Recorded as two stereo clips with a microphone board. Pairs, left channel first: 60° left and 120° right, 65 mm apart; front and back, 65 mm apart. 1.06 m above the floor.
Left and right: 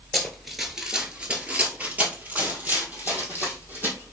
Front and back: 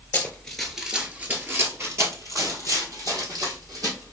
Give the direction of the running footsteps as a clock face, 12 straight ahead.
12 o'clock.